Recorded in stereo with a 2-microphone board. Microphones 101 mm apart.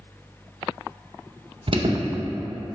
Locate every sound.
1.7 s an alarm: 50° right (ahead or behind), 0.6 m